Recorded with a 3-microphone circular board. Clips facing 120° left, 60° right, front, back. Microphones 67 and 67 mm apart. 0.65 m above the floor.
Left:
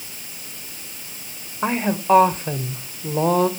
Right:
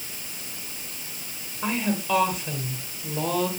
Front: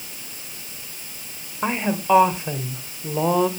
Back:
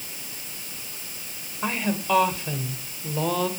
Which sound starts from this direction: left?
A woman speaking, at 1.6 s.